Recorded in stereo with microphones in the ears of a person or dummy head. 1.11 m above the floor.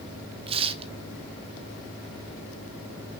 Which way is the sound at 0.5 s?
35° right (ahead or behind).